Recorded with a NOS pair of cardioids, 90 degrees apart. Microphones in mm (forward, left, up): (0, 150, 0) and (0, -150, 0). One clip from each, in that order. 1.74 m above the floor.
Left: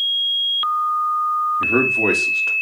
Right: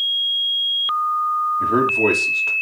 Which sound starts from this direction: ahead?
A man speaking, at 1.6 s.